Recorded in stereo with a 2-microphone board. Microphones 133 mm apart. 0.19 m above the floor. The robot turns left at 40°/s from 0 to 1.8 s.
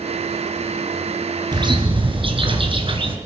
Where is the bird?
30° right (ahead or behind), 3 m; by 3.1 s 40° right (ahead or behind), 3 m.